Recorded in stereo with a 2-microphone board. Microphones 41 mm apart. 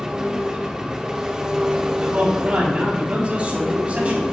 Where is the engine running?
15° right (ahead or behind), 1.1 m.